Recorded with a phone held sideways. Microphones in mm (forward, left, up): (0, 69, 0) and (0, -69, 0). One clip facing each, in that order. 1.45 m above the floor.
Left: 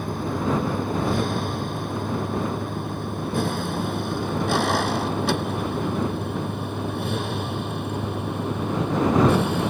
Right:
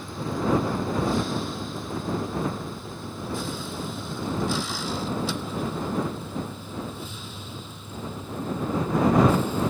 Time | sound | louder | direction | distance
0.0 | a vehicle | left 2 dB | 60° left (ahead or behind) | ?